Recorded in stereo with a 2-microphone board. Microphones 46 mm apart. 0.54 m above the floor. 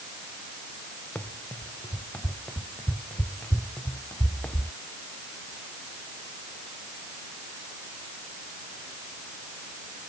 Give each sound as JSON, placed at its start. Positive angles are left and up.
{"t": 1.1, "sound": "running footsteps", "side_deg": 30}